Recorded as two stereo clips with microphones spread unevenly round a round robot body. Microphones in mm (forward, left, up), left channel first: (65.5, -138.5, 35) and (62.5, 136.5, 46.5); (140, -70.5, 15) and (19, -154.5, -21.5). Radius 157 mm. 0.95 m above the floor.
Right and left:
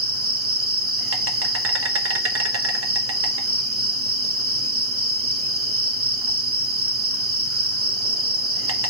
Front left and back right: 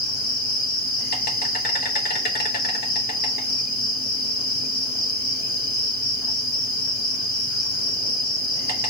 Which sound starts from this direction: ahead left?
An insect, at 0.0 s.